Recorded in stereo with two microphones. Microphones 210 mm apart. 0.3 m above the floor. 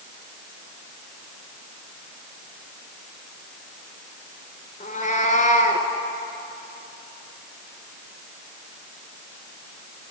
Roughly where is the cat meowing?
Left.